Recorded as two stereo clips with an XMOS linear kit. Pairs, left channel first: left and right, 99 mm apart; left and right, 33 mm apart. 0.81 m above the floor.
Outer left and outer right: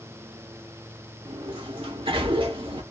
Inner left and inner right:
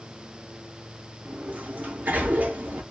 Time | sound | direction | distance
1.2 | a sliding door | 60° right (ahead or behind) | 0.9 m